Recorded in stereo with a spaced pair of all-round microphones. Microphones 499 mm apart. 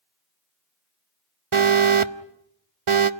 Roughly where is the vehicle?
I don't hear a vehicle.